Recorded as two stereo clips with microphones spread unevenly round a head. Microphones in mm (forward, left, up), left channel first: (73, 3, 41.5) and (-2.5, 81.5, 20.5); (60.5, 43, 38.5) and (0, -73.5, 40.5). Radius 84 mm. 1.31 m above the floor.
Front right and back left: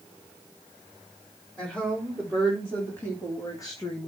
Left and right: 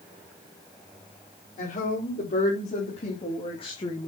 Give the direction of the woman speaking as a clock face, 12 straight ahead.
11 o'clock.